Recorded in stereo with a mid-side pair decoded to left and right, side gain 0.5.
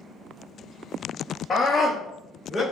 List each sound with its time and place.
1.5 s a scream: 40° left, 0.9 m; by 2.6 s 25° left, 1.5 m